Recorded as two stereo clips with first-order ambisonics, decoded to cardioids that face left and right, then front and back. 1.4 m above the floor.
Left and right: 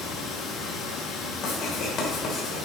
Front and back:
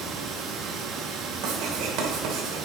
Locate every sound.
0.0 s running water: 135° left, 2 m
1.4 s writing: 145° left, 3 m